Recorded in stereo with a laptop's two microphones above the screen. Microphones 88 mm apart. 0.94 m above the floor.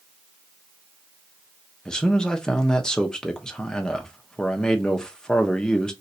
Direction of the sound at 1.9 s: 10° left (ahead or behind).